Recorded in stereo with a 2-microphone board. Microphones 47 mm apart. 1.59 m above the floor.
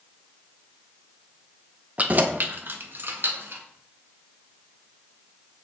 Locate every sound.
2.0 s keys jangling: 35° right (ahead or behind), 1.0 m; by 3.6 s 60° right (ahead or behind), 2.5 m